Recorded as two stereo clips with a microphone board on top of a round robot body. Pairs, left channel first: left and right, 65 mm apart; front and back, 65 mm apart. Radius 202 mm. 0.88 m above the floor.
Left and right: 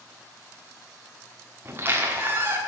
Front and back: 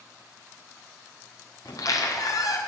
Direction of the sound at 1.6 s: 35° right.